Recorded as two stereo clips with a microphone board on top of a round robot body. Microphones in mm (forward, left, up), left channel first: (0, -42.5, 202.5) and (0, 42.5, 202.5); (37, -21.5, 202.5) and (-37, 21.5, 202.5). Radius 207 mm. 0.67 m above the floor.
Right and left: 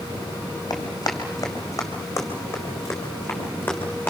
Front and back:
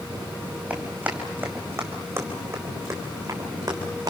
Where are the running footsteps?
135° right, 3 m; by 4.1 s 160° right, 4 m.